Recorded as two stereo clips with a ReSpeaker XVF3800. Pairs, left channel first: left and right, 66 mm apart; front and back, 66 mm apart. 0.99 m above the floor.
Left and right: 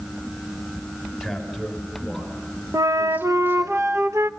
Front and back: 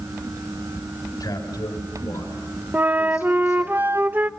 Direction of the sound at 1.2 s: Straight ahead.